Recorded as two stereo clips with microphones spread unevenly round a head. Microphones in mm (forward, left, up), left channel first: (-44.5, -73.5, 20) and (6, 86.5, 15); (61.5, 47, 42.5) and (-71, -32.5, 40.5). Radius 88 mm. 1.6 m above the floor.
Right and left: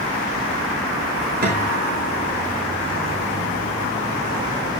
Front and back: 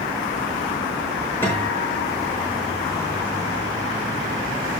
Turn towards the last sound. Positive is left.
turn(degrees=105)